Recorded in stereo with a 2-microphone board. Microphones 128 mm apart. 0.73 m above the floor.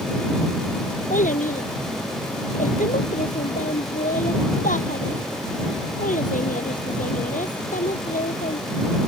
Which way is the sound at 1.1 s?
75° left (ahead or behind).